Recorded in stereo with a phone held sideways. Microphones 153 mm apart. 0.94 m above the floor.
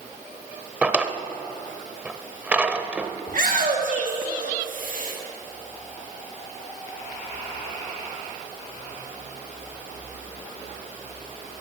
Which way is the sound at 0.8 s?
10° right (ahead or behind).